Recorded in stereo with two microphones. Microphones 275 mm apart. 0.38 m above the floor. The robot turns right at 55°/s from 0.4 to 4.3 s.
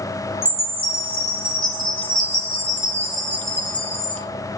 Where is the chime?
165° right, 2.5 m; by 4.2 s 45° left, 2.5 m.